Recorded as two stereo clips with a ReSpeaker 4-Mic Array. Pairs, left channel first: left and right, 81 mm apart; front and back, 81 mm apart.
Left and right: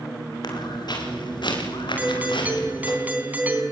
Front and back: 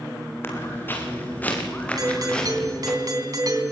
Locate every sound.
0.4 s footsteps: 60° left, 6.5 m; by 3.0 s 85° left, 7 m
2.0 s a doorbell: 155° right, 3 m